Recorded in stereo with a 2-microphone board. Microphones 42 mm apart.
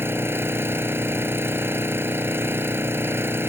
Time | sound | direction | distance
0.0 | an engine running | 70° right (ahead or behind) | ?